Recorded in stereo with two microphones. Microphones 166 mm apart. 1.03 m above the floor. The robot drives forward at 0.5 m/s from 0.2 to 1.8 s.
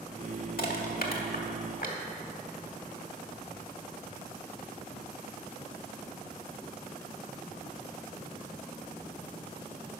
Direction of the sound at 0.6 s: 70° left (ahead or behind).